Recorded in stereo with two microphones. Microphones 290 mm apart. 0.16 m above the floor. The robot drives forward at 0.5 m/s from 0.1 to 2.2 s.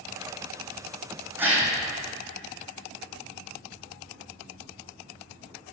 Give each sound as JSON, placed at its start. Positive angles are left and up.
{"t": 1.4, "sound": "a gasp", "side_deg": -5, "distance_m": 1.8}